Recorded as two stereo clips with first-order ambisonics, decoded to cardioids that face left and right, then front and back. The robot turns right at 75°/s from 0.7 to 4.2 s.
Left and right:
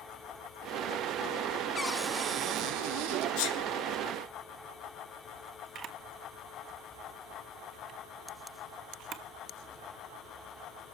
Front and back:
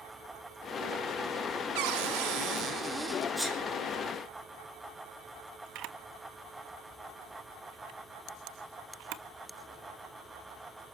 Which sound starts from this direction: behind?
A cupboard door, at 1.8 s.